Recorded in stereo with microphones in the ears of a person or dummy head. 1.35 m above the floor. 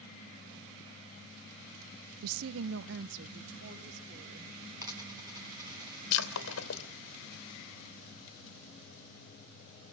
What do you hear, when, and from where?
2.2 s a woman speaking: 85° right, 0.5 m; by 4.7 s 60° right (ahead or behind), 4.5 m
4.8 s a dropped coin: 15° right (ahead or behind), 4 m
6.1 s breaking glass: 80° left, 3 m